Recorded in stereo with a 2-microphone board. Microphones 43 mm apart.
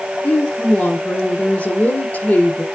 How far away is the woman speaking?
About 1.6 m.